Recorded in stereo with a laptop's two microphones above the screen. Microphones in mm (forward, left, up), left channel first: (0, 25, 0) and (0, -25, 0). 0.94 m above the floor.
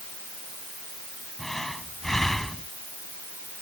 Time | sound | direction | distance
1.4 | breathing | 5° left (ahead or behind) | ?